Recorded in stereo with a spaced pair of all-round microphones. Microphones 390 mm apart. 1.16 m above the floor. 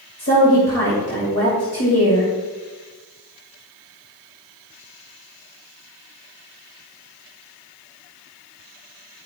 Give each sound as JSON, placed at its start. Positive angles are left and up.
{"t": 0.2, "sound": "a woman speaking", "side_deg": 40, "distance_m": 2.5}